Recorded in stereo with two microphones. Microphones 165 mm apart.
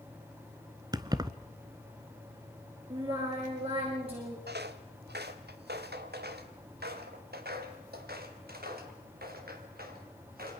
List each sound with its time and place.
0.9 s keys jangling: 25° right (ahead or behind), 1.0 m
2.9 s singing: 35° right (ahead or behind), 8.5 m
4.5 s footsteps: 85° right, 1.7 m; by 10.6 s 65° right (ahead or behind), 5 m